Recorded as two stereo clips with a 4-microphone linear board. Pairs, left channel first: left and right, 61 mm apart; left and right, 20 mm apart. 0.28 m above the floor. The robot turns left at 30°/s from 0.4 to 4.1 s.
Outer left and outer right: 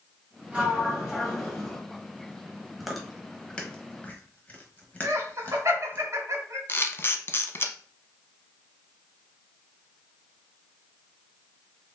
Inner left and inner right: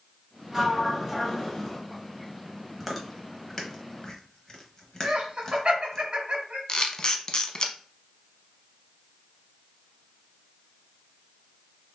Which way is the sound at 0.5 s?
150° right.